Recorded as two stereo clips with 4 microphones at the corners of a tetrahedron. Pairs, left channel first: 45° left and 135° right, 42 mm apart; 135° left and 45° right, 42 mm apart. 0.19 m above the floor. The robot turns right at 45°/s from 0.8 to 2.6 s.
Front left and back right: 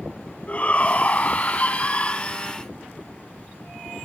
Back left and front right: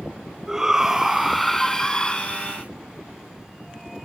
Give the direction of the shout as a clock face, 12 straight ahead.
11 o'clock.